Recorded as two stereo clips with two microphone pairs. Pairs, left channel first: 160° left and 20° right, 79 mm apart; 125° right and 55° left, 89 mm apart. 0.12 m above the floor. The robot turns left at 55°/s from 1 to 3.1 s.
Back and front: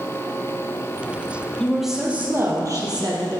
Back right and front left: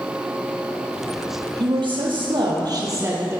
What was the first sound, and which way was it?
A woman speaking, 80° left.